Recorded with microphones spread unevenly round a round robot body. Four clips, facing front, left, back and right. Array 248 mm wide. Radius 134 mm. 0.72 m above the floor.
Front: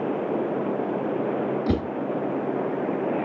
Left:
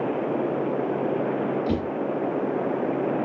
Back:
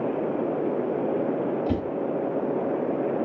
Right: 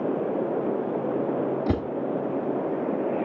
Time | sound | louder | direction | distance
1.7 | a whoosh | even, front 2 dB | 40° right | 3 m